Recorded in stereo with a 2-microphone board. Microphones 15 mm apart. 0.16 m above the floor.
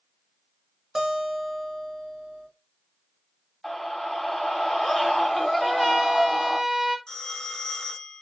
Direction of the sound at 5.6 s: 15° right (ahead or behind).